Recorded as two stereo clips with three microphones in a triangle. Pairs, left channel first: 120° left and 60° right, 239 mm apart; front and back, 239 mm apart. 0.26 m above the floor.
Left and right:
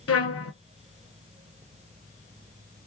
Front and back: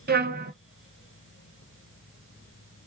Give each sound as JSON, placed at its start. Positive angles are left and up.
{"t": 0.1, "sound": "a trumpet", "azimuth_deg": 135, "distance_m": 0.7}